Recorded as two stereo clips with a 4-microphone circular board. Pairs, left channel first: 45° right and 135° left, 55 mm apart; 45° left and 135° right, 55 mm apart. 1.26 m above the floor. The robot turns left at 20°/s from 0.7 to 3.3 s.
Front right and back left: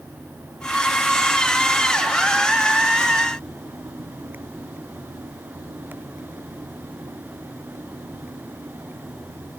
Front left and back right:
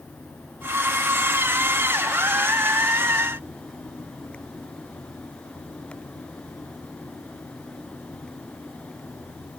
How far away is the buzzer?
I don't hear a buzzer.